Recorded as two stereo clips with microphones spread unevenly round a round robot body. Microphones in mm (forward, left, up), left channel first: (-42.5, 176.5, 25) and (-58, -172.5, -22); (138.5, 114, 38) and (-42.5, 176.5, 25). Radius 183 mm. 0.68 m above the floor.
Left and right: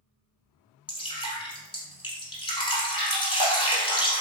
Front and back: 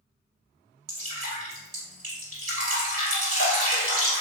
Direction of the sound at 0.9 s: 160° left.